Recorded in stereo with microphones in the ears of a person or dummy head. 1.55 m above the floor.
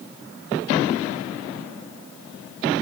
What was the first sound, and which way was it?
Only background noise.